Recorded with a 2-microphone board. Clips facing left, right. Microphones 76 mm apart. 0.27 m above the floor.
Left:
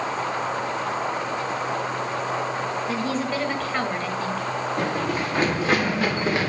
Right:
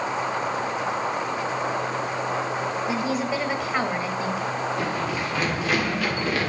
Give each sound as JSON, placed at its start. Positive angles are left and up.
{"t": 2.9, "sound": "a woman speaking", "side_deg": -15, "distance_m": 1.2}
{"t": 4.8, "sound": "running footsteps", "side_deg": 45, "distance_m": 3.5}